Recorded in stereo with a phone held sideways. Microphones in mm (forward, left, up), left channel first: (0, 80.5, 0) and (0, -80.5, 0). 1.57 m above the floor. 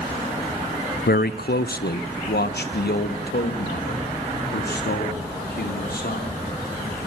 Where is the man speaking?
80° left, 0.6 m; by 6.4 s 90° left, 5 m.